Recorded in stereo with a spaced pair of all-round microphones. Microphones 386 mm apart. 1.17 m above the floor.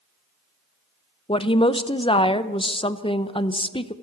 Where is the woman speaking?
15° left (ahead or behind), 0.6 m.